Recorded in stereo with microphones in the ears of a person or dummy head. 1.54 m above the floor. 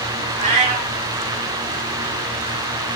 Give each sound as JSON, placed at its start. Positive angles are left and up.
{"t": 0.4, "sound": "a cat meowing", "side_deg": -25, "distance_m": 0.7}